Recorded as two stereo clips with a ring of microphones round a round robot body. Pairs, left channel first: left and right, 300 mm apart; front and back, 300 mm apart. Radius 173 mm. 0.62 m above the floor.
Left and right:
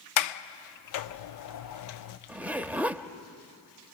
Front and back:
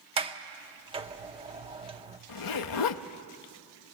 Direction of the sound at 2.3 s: 5° right.